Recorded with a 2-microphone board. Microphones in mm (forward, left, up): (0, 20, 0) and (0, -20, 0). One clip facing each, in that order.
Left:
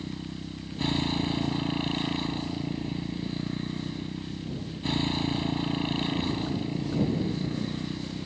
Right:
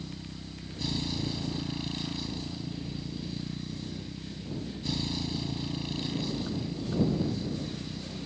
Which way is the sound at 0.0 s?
45° left (ahead or behind).